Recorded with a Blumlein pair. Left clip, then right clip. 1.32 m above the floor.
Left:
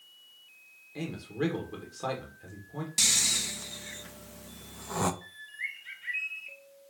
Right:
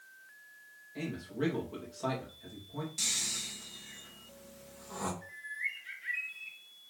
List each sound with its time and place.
0.9 s a man speaking: 15° left, 1.8 m
3.0 s snoring: 60° left, 0.5 m
5.2 s a bird: 15° left, 3 m